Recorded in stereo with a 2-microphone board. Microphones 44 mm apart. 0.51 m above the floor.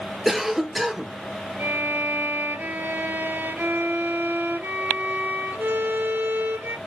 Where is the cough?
5° right (ahead or behind), 1.2 m.